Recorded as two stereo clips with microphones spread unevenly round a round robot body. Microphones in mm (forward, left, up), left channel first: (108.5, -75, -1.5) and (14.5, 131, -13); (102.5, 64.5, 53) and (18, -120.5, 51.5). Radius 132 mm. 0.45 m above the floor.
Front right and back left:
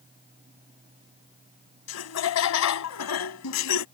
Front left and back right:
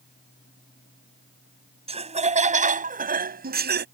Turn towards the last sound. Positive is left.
turn(degrees=-80)